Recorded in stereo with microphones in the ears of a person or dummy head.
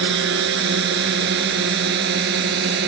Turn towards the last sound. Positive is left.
turn(degrees=-65)  # may be behind; listen again after turning